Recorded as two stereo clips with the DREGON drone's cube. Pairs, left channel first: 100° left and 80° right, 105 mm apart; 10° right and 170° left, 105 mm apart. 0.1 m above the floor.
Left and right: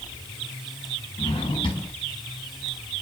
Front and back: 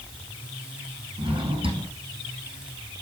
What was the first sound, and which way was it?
A drawer, 140° left.